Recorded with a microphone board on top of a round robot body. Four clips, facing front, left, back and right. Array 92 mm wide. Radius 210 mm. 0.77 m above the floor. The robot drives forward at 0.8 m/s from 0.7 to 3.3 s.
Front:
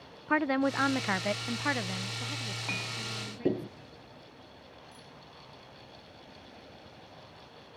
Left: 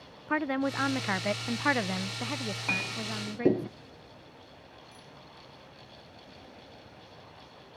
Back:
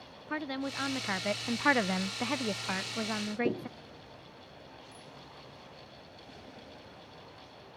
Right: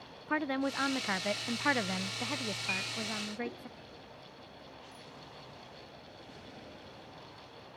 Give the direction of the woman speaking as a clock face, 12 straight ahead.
11 o'clock.